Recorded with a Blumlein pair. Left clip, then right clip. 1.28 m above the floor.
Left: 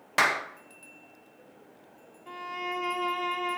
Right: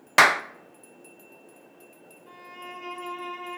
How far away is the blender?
No blender in this recording.